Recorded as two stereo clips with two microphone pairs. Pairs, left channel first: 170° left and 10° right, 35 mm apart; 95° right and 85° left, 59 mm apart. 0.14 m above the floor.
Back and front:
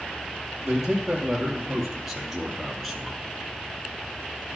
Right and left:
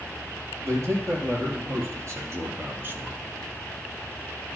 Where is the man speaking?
65° left, 3 m; by 3.2 s 85° left, 1.1 m.